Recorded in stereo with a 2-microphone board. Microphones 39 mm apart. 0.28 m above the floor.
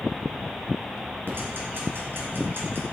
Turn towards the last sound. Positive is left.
turn(degrees=-65)  # may be behind; listen again after turning